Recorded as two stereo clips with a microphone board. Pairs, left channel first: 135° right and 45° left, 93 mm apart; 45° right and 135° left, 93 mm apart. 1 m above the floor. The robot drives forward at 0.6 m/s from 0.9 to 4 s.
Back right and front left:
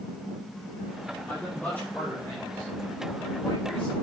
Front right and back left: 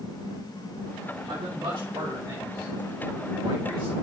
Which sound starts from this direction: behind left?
A man speaking, at 1.3 s.